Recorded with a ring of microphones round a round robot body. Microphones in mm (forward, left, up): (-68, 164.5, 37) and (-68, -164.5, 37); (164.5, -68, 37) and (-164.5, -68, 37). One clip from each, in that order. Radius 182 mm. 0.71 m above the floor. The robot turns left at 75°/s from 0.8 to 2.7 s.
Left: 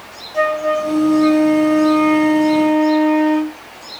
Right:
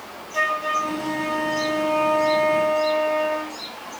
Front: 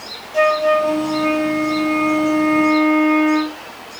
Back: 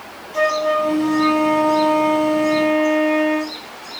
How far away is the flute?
About 1.3 m.